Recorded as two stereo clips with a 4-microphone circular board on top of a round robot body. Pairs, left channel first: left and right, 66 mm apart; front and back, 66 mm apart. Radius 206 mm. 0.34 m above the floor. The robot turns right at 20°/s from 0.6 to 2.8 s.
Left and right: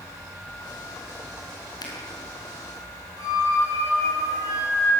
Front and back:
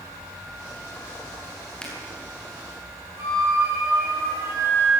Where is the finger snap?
80° left, 6 m.